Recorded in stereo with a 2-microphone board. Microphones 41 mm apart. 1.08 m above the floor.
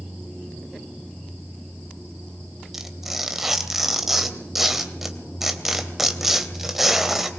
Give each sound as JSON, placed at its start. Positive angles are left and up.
{"t": 2.7, "sound": "tearing paper", "side_deg": -5, "distance_m": 2.5}